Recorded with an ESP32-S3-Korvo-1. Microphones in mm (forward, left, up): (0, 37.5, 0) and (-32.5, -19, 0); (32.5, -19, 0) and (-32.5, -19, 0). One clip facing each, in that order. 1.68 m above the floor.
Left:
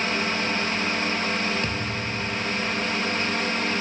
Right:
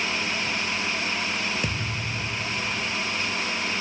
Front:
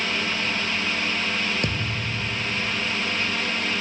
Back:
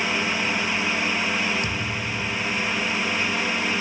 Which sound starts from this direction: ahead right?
A thud, at 1.6 s.